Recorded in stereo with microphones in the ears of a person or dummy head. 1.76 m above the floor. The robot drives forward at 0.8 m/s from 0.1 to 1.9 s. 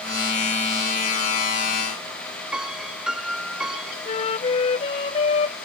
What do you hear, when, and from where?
2.5 s a piano: 5° right (ahead or behind)
4.0 s a flute: 35° left (ahead or behind)